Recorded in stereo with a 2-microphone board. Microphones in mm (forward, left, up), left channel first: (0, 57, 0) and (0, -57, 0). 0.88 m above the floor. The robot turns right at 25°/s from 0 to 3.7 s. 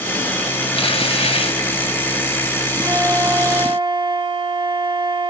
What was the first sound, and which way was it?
Tearing paper, 55° left (ahead or behind).